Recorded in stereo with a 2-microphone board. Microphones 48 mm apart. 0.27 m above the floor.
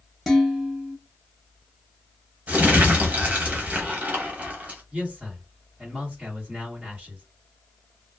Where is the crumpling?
30° right (ahead or behind), 0.9 m.